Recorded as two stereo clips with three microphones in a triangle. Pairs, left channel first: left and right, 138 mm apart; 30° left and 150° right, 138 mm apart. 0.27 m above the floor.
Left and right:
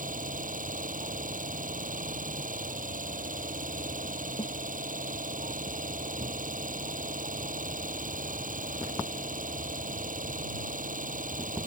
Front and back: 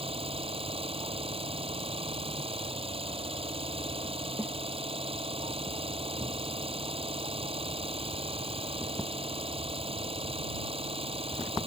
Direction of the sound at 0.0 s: 105° right.